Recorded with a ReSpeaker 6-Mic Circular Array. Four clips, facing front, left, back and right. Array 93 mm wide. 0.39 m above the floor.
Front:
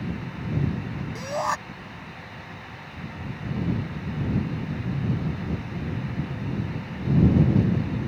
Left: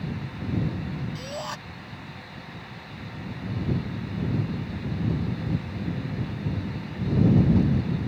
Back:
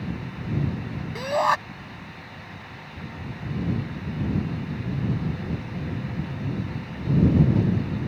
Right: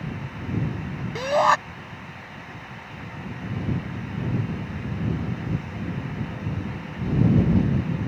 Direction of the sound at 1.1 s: 110° right.